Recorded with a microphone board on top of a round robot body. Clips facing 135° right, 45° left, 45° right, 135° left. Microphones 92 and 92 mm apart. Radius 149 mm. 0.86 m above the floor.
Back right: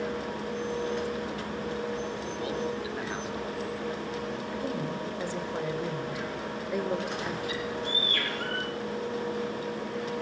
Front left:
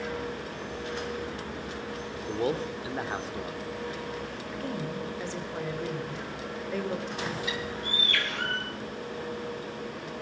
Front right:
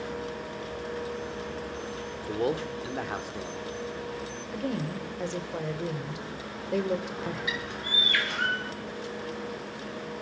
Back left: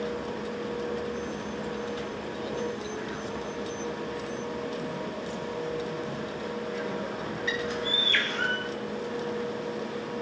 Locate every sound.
2.3 s a man speaking: 10° right, 2.5 m
4.5 s a woman speaking: 55° right, 3.5 m
7.5 s a bird: 35° left, 6.5 m